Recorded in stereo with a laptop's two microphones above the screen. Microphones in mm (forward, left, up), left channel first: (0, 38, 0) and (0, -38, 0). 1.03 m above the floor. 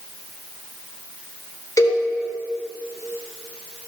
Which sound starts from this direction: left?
A cowbell, at 1.8 s.